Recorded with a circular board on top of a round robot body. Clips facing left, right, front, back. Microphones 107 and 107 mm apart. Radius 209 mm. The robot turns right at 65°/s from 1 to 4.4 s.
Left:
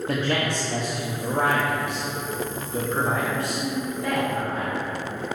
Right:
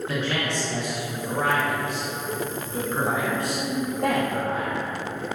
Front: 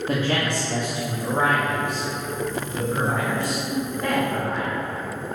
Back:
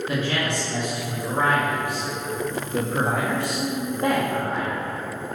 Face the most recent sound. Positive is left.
turn(degrees=-95)